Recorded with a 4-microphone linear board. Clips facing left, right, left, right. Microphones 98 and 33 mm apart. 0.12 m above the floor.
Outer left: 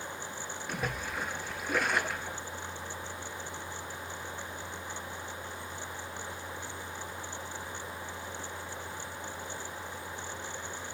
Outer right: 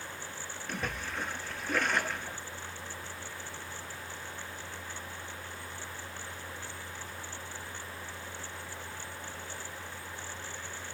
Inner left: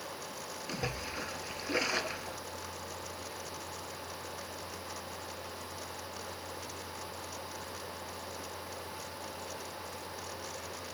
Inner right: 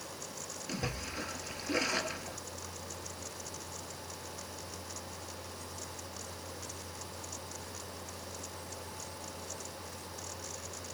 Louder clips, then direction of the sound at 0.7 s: Outer left 1 dB, inner left 1 dB; 10° left (ahead or behind).